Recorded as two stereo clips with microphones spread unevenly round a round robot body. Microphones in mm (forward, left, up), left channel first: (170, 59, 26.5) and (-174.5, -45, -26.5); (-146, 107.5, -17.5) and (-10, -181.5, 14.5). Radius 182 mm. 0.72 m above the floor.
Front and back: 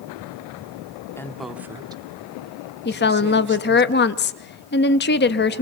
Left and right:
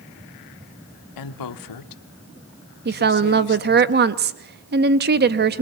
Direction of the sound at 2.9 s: 30° right.